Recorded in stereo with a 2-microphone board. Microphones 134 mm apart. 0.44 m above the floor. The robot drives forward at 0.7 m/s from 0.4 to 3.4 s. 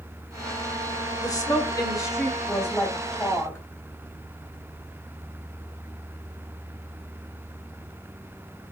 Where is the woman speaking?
25° left (ahead or behind), 1.9 m; by 3.6 s 15° left (ahead or behind), 3 m.